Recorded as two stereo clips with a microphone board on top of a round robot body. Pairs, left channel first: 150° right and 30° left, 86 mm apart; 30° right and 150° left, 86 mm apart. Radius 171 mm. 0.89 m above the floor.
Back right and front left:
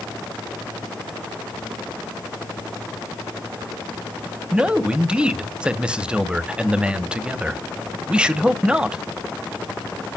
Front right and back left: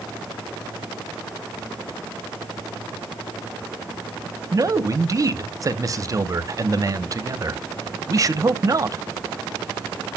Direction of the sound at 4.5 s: 105° left.